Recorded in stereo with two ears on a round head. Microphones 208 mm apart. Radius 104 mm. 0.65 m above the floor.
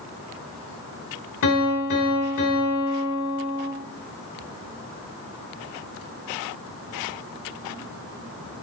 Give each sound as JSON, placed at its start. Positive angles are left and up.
{"t": 1.4, "sound": "a piano", "side_deg": 60, "distance_m": 2.5}